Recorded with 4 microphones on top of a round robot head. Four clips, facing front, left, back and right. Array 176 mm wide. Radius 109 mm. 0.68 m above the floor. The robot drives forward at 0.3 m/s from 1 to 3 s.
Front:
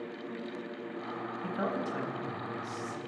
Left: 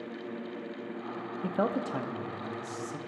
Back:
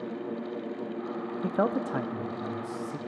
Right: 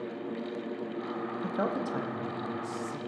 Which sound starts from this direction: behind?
A man speaking, at 1.4 s.